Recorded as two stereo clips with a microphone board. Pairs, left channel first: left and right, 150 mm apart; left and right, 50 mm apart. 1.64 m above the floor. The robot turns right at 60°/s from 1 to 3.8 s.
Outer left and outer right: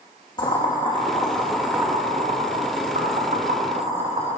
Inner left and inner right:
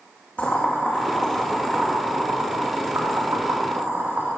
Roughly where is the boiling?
Left.